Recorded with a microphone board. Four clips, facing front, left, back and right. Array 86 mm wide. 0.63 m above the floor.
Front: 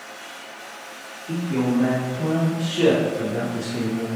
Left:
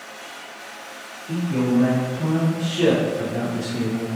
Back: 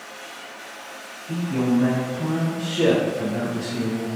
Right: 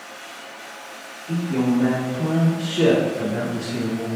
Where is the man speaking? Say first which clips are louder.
Even, even; 25° right, 1.3 m; by 4.1 s 105° right, 1.7 m.